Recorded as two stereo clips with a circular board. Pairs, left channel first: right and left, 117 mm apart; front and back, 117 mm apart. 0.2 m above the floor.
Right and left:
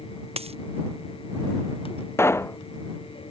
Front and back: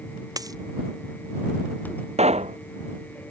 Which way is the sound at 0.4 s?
120° left.